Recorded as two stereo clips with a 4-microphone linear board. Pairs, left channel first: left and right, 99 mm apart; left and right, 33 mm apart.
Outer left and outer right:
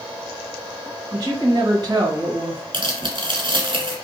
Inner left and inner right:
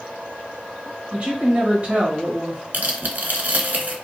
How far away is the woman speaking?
About 1.6 m.